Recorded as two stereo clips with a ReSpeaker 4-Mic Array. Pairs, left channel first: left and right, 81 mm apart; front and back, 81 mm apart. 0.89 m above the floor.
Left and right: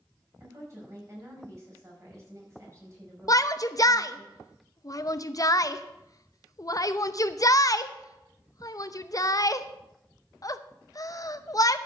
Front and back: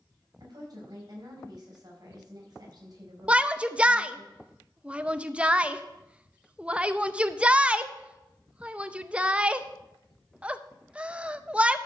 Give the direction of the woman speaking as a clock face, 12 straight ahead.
5 o'clock.